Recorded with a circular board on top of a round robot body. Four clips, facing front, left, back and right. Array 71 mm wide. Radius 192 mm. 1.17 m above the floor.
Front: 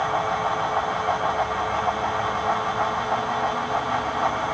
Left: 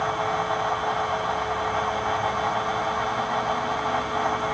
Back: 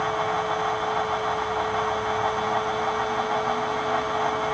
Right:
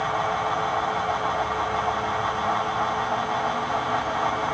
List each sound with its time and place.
Only background noise.